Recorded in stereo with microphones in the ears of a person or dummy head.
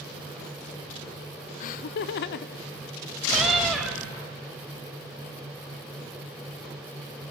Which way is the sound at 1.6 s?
45° left (ahead or behind).